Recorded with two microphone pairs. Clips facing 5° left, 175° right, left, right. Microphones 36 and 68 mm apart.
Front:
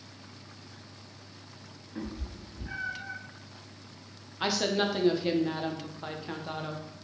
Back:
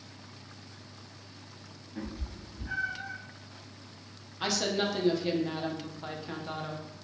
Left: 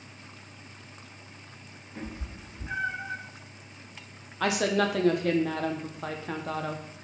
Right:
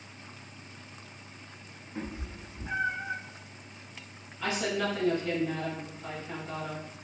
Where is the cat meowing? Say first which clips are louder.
Front 1 dB, right 1 dB; 20° right, 1.7 m; by 3.2 s 40° right, 2 m.